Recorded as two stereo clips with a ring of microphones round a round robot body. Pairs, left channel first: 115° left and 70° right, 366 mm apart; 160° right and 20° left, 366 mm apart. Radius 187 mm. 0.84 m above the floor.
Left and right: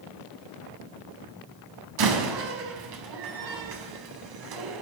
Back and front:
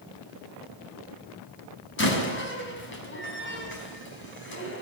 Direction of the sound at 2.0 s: 95° right.